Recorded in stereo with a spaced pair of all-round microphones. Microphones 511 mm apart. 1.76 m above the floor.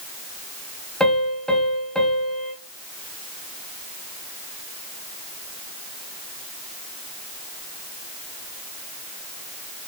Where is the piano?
Centre (ahead or behind), 2.5 m.